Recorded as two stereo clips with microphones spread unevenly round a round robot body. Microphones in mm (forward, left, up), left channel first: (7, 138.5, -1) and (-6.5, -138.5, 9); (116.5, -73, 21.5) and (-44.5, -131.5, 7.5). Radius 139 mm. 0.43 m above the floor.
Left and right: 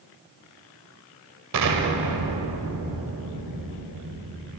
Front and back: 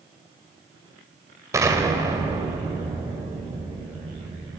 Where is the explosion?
90° right, 2.5 m.